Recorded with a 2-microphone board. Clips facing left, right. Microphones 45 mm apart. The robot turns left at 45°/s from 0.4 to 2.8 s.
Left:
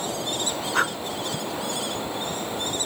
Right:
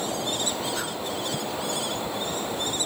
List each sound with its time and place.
0.7 s breathing: 55° left (ahead or behind), 0.7 m; by 0.9 s 50° left (ahead or behind), 0.7 m